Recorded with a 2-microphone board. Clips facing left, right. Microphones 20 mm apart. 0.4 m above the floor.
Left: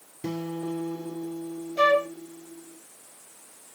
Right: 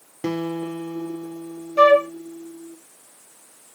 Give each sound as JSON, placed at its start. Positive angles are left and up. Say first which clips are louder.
{"t": 0.2, "sound": "a guitar", "louder": "right 5 dB", "side_deg": -80, "distance_m": 0.6}
{"t": 1.8, "sound": "a flute", "louder": "right 7 dB", "side_deg": -60, "distance_m": 2.5}